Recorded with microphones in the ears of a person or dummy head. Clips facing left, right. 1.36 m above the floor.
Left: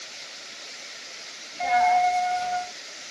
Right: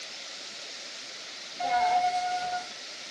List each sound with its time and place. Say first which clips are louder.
1.6 s a dropped coin: left 5 dB; 35° left (ahead or behind), 2.5 m